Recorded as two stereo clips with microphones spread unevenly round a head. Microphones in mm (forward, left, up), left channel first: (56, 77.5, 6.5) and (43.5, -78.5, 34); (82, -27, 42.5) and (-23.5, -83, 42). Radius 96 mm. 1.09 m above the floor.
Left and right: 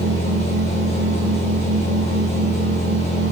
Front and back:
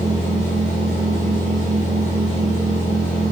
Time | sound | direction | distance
0.0 | a machine running | 40° left | 2.5 m